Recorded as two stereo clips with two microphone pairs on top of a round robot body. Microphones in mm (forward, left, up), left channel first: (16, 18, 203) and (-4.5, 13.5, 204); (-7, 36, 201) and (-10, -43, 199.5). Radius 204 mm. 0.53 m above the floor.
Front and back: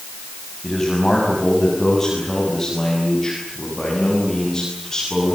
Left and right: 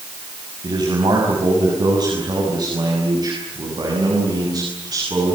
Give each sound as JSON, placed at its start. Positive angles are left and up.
{"t": 0.6, "sound": "a man speaking", "azimuth_deg": -60, "distance_m": 6.0}